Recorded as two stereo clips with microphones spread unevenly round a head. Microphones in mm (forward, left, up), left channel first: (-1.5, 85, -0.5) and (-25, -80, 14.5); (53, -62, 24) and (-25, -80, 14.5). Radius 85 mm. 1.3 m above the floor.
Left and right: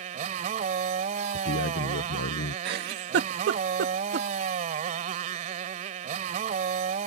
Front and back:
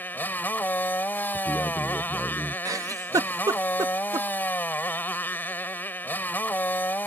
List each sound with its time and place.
0.0 s a motorcycle: 50° right
1.3 s a man speaking: 105° left
2.6 s a giggle: 125° right